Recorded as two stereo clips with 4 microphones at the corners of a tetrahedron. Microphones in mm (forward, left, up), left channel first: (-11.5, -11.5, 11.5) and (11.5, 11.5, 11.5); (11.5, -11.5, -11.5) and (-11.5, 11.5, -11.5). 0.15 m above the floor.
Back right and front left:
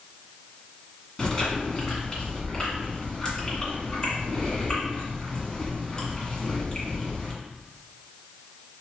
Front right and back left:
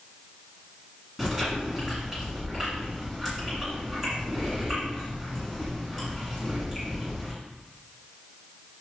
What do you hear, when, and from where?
1.2 s chewing: 175° right, 1.8 m